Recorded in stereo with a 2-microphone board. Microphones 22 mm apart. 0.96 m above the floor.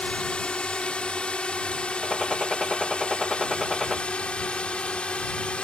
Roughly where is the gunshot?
Centre.